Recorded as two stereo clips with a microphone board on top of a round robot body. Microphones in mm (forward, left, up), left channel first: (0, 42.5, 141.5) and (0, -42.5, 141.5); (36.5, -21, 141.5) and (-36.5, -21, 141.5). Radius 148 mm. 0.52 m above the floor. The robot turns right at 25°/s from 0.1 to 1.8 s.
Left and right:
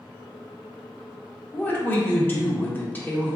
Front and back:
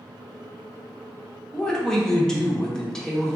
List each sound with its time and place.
1.5 s a woman speaking: 60° left, 1.1 m; by 3.4 s 70° left, 1.1 m